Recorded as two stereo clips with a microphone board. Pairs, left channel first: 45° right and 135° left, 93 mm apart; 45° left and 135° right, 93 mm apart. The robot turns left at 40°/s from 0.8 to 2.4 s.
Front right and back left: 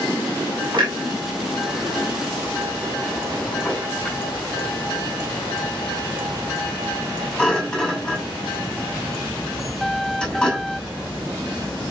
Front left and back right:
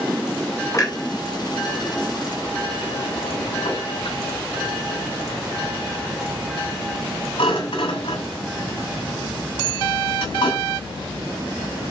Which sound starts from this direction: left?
A clunk, at 0.7 s.